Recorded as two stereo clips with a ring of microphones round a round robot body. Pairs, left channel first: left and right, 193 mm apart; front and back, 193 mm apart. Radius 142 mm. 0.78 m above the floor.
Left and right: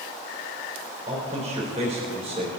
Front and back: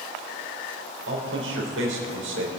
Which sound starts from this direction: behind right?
A man speaking, at 1.1 s.